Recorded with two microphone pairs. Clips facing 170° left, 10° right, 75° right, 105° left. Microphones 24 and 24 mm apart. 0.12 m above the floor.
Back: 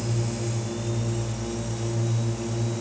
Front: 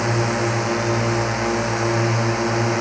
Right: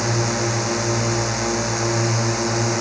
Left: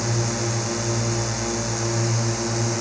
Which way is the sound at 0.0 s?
5° right.